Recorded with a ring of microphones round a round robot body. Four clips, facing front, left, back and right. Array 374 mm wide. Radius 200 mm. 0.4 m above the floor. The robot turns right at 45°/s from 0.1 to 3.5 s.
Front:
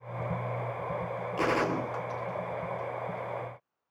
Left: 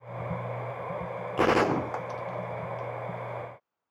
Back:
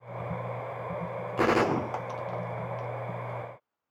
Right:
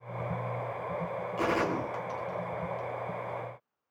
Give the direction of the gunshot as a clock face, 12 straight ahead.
8 o'clock.